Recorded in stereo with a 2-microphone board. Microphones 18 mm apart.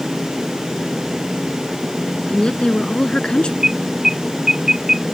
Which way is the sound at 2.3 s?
55° left (ahead or behind).